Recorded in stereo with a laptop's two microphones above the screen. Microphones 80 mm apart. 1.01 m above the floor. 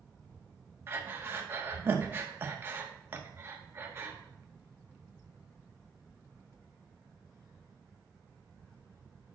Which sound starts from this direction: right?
Breathing, at 0.9 s.